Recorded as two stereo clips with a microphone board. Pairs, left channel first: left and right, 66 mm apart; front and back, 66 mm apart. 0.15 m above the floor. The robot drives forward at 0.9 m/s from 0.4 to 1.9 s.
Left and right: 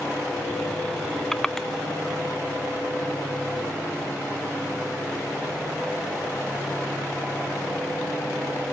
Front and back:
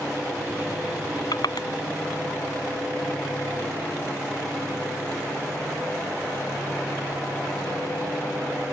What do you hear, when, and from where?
1.3 s crushing: 5° left